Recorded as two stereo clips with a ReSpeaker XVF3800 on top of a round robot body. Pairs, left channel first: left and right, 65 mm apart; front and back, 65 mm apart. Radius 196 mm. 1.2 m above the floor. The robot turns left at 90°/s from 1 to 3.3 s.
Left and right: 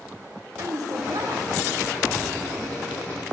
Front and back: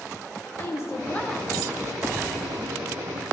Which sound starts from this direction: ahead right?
A woman speaking, at 0.6 s.